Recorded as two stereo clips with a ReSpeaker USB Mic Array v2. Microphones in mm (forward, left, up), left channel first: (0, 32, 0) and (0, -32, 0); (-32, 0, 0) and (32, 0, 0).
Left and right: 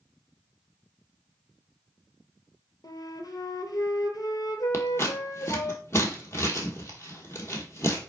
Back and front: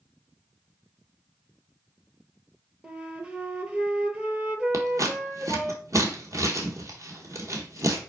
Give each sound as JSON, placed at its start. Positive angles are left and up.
{"t": 2.8, "sound": "a flute", "azimuth_deg": 70, "distance_m": 0.8}
{"t": 4.7, "sound": "scissors", "azimuth_deg": 40, "distance_m": 1.1}